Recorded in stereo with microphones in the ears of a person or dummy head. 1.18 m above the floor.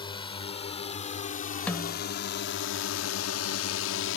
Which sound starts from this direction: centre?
A drone, at 0.0 s.